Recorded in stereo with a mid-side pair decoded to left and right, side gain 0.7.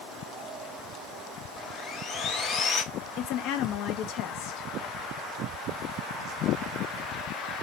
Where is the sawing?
35° left, 0.6 m.